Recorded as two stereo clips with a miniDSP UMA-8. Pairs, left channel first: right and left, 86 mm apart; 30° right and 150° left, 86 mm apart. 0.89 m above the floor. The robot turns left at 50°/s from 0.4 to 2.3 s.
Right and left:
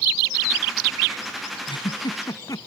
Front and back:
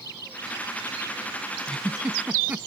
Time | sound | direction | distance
1.7 | a giggle | 105° right | ?